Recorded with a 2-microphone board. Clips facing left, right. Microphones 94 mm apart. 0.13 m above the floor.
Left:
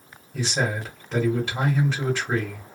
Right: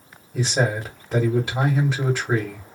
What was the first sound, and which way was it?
A man speaking, 10° right (ahead or behind).